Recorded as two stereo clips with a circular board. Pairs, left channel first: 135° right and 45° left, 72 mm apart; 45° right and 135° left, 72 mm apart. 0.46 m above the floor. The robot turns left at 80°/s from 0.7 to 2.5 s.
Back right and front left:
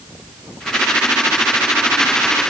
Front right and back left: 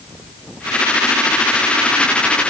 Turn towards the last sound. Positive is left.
No sound to turn to.